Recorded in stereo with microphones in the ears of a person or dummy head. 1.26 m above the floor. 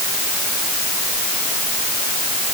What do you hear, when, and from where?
Only background noise.